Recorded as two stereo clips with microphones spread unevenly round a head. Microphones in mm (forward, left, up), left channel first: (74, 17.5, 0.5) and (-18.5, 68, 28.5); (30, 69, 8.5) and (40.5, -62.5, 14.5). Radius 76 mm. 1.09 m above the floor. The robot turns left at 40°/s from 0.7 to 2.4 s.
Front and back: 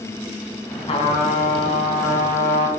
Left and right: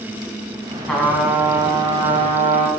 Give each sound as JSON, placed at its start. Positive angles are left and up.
{"t": 0.9, "sound": "a trumpet", "azimuth_deg": 10, "distance_m": 4.5}